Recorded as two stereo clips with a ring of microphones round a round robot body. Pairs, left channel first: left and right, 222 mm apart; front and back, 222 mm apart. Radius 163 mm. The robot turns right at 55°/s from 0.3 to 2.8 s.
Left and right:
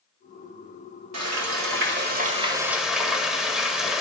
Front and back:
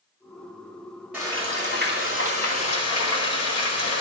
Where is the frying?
95° right, 1.6 m; by 4.0 s straight ahead, 1.6 m.